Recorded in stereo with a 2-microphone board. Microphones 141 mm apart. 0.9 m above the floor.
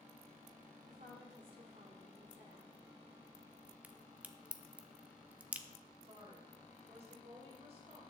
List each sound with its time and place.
0.9 s a woman speaking: 65° right (ahead or behind), 3.5 m
3.8 s a crack: 10° right (ahead or behind), 0.7 m
6.0 s a woman speaking: 45° right (ahead or behind), 3 m